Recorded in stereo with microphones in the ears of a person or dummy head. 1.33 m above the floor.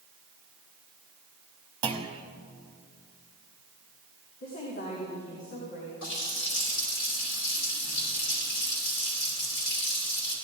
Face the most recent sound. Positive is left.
turn(degrees=80)